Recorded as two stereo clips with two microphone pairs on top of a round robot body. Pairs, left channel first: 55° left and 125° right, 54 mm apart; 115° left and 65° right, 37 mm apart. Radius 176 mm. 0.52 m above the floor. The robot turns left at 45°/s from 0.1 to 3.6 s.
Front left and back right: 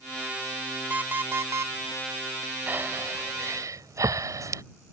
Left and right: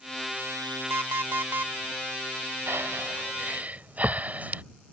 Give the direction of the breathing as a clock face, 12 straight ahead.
2 o'clock.